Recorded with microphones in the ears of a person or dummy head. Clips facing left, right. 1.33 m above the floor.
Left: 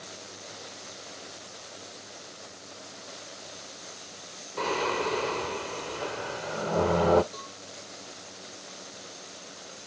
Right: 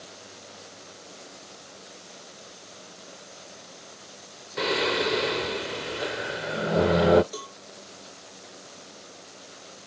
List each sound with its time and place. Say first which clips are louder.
4.6 s singing: right 3 dB; 15° right (ahead or behind)
7.3 s a cowbell: right 5 dB; 50° right (ahead or behind)